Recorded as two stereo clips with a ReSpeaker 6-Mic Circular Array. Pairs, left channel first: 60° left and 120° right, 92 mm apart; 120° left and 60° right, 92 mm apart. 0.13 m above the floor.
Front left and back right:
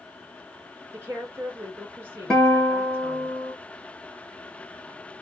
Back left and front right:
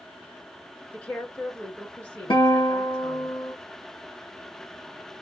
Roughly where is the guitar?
Behind left.